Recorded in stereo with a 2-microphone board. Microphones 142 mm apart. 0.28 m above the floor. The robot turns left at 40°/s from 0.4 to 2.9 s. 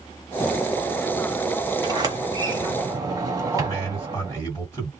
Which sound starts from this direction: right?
A sliding door, at 1.8 s.